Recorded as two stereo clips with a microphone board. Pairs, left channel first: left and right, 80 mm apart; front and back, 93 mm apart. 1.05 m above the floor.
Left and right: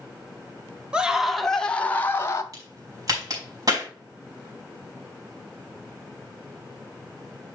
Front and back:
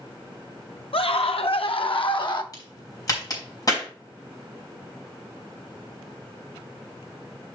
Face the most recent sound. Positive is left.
turn(degrees=-50)